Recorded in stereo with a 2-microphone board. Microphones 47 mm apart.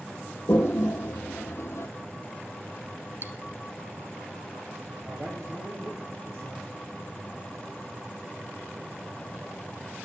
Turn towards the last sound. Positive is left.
turn(degrees=-65)  # may be behind; listen again after turning